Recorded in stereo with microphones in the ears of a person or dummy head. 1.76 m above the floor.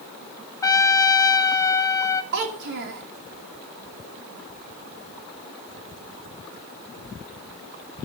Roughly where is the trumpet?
Centre.